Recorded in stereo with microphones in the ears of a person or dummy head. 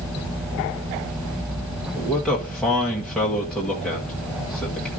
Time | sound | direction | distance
1.9 | a man speaking | 5° left (ahead or behind) | 1.6 m